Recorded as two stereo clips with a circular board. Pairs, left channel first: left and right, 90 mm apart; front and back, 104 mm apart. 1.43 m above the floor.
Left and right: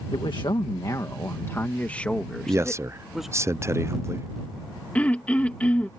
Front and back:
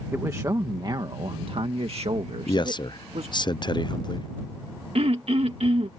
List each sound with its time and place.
0.1 s a man speaking: 115° left; by 3.5 s 175° right
2.5 s a man speaking: 35° right
5.0 s throat clearing: 165° left